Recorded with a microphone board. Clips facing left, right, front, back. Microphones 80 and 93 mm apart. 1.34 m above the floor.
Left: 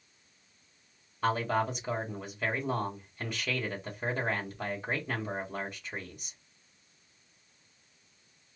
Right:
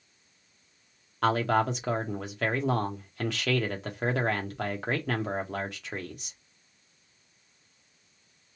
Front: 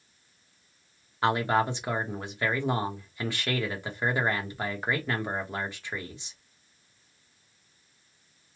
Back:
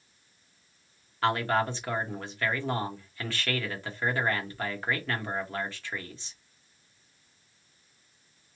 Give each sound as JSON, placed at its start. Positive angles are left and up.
{"t": 1.2, "sound": "a man speaking", "azimuth_deg": -75, "distance_m": 1.1}